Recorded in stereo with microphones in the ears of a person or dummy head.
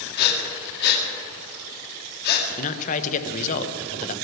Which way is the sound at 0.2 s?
60° left (ahead or behind).